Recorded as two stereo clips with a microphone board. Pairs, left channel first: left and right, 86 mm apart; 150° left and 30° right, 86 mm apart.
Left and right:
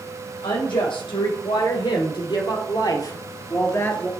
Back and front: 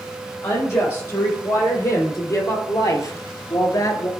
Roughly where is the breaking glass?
No breaking glass in this recording.